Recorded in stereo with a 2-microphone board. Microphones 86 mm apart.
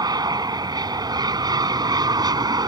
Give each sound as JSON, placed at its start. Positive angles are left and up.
{"t": 0.0, "sound": "an aircraft", "side_deg": -50}